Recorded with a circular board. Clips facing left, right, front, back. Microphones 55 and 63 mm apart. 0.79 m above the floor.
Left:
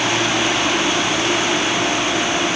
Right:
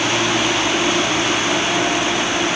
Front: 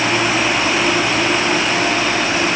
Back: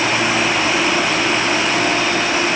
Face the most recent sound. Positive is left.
No sound to turn to.